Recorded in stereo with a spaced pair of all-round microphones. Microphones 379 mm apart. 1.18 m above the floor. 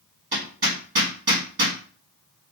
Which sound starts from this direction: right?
Hammering, at 0.3 s.